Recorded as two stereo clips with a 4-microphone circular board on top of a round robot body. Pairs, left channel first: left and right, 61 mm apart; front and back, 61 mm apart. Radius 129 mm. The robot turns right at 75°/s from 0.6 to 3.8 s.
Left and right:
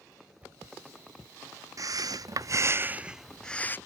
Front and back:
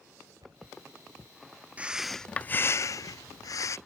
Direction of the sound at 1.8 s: 115° right.